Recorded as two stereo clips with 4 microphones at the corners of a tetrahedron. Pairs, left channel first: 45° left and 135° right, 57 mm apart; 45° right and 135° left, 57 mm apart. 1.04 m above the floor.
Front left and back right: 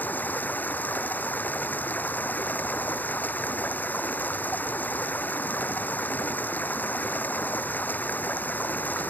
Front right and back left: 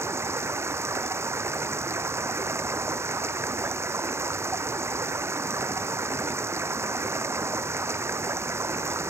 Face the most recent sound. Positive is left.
turn(degrees=100)